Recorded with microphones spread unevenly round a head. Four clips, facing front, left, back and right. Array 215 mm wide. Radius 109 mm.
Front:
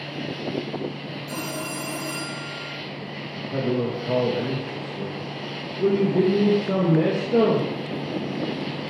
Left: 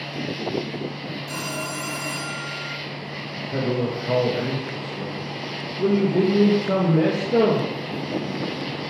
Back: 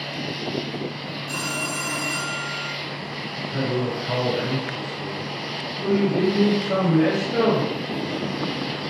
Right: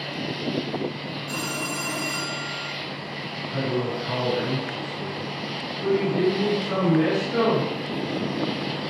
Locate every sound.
0.0 s an insect: 105° left, 1.3 m
1.3 s a phone ringing: 30° left, 5.5 m
3.3 s a man speaking: 45° left, 2 m